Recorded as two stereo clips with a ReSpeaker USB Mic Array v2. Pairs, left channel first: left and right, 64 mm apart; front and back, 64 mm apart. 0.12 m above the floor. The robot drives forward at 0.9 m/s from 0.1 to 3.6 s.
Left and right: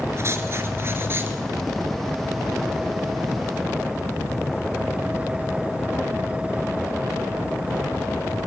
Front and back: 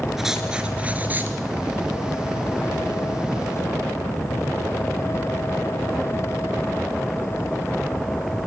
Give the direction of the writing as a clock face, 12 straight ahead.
3 o'clock.